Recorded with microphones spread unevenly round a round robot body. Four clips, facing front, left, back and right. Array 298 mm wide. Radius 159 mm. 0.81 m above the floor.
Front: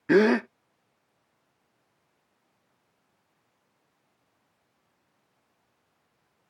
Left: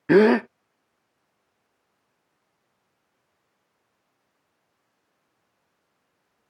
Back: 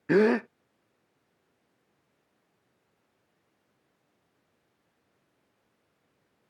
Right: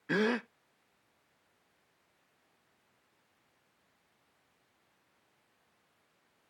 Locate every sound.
0.1 s a gasp: 60° left